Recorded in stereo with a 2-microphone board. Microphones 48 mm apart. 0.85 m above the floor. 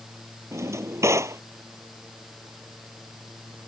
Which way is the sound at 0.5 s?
85° right.